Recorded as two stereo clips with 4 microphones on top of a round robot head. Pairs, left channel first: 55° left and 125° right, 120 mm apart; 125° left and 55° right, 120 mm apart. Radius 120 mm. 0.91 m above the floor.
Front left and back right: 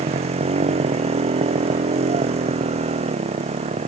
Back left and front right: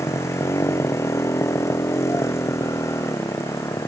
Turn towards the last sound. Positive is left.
turn(degrees=-165)